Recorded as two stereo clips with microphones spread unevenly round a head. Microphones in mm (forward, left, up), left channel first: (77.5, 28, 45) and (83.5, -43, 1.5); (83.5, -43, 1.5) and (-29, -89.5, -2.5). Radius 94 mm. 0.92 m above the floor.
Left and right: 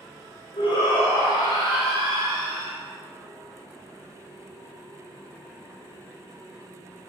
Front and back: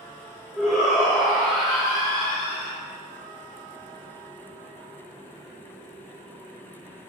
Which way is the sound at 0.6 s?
125° left.